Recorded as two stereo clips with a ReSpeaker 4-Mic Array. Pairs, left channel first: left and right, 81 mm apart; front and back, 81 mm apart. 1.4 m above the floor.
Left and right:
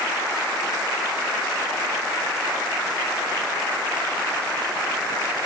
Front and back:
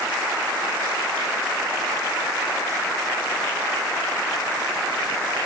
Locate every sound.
Only background noise.